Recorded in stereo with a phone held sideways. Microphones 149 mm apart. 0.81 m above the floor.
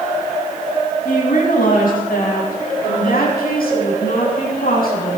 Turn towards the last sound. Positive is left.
turn(degrees=75)  # may be behind; listen again after turning